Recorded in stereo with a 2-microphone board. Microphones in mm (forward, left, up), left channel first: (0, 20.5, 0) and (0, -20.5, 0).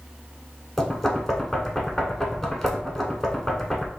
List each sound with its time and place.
0.8 s knocking: 5° left (ahead or behind), 0.8 m